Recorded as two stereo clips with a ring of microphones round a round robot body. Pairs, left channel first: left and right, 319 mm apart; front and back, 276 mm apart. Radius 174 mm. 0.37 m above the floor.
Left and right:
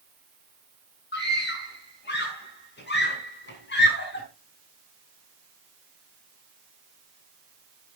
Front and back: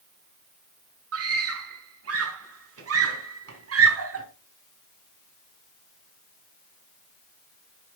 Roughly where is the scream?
Behind left.